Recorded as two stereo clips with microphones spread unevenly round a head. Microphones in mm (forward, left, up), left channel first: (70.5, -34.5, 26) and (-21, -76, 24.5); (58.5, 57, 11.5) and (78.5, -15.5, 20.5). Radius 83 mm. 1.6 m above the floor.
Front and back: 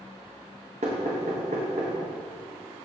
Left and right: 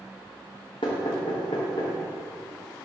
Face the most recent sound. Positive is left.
turn(degrees=155)